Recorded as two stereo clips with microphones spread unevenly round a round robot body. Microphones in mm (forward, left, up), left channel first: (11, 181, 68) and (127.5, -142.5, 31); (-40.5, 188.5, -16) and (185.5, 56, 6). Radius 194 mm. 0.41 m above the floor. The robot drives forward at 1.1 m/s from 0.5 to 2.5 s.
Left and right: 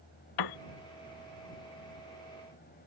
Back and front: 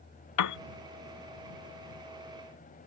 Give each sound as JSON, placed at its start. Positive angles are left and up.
{"t": 0.4, "sound": "a piano", "azimuth_deg": 140}